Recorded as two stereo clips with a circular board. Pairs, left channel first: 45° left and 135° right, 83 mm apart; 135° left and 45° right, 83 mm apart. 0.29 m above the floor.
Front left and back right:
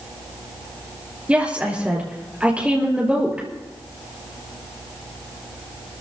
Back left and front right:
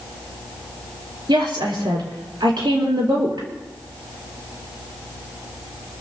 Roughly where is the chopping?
No chopping in this recording.